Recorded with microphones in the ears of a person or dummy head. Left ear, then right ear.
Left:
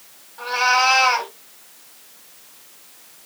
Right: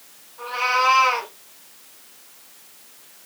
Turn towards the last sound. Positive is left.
turn(degrees=30)  # may be behind; listen again after turning